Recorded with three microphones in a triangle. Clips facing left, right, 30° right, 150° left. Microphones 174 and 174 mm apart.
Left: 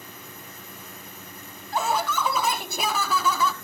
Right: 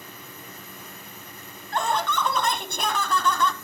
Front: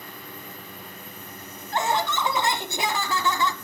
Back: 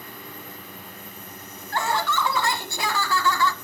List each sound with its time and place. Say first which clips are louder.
1.7 s laughter: even, even; 10° left, 1.3 m